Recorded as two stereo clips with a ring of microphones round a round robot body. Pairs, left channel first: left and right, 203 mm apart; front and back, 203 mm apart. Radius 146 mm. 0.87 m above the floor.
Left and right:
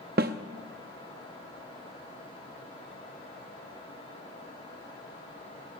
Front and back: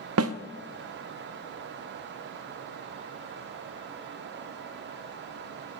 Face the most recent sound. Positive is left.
turn(degrees=-150)